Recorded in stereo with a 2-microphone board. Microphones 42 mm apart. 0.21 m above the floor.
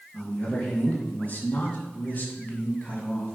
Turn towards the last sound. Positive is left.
turn(degrees=25)  # may be behind; listen again after turning